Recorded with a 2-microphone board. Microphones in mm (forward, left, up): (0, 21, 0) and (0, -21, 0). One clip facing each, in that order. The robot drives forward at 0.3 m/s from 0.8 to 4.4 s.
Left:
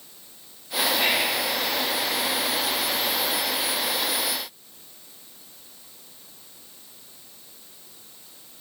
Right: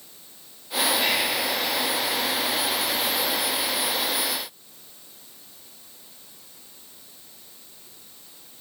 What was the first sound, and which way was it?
Whispering, 20° left (ahead or behind).